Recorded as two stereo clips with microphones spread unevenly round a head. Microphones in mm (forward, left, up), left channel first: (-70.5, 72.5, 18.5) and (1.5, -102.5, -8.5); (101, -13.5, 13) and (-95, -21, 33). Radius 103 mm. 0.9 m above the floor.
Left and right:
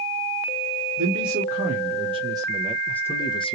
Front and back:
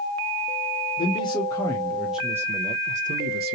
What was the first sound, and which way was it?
A man speaking, 55° right.